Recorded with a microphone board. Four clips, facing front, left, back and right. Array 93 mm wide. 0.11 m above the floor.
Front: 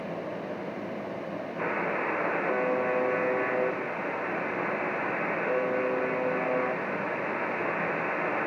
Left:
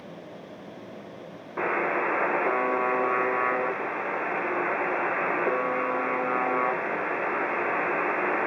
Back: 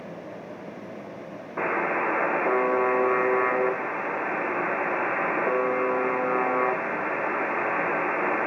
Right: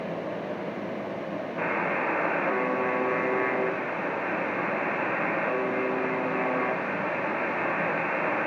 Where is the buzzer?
140° left, 4 m.